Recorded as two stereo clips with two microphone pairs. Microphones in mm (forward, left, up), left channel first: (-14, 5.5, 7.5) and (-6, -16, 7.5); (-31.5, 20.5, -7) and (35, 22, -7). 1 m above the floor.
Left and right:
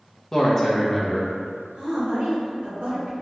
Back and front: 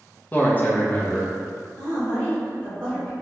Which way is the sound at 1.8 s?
105° right.